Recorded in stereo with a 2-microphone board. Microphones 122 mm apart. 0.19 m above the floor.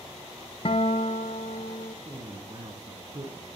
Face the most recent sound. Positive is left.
turn(degrees=-40)  # may be behind; listen again after turning